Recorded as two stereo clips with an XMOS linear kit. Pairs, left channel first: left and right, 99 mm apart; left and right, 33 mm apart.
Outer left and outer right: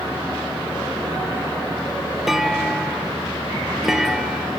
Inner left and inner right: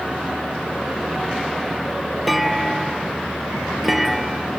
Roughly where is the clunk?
Centre.